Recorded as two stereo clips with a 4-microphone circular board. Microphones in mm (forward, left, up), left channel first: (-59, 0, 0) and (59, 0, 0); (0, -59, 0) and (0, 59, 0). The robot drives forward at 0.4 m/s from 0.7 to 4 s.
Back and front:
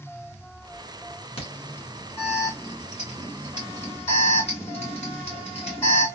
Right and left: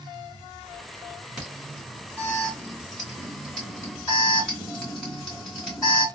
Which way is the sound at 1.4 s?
175° left.